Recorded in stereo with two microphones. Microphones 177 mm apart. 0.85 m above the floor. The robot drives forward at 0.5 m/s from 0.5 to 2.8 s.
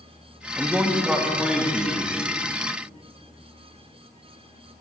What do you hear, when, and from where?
0.6 s a man speaking: 10° right (ahead or behind), 0.8 m; by 2.1 s 5° right (ahead or behind), 1.5 m